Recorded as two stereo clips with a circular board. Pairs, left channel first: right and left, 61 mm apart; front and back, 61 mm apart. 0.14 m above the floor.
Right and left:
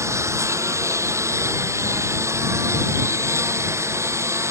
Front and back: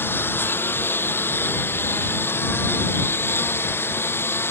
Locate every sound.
0.0 s a lawn mower: 55° left; by 4.5 s 50° left